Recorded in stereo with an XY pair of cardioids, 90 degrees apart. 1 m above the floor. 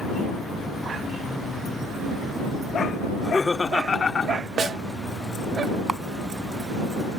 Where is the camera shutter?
30° right.